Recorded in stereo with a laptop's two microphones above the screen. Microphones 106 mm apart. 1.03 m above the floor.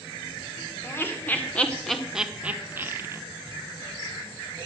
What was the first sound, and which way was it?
Laughter, 25° left (ahead or behind).